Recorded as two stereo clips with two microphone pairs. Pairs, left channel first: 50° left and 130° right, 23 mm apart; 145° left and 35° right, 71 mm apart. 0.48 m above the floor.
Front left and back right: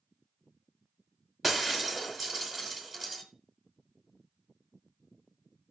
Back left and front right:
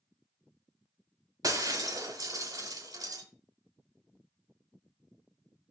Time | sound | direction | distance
1.4 | breaking glass | 55° right | 1.5 m